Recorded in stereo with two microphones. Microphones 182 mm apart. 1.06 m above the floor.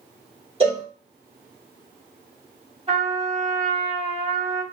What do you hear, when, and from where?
0.6 s a cowbell: 30° right (ahead or behind), 1.4 m
2.9 s a trumpet: 35° right (ahead or behind), 1.4 m